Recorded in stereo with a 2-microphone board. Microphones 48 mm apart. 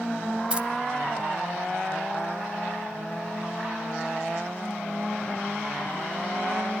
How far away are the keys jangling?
About 1.0 m.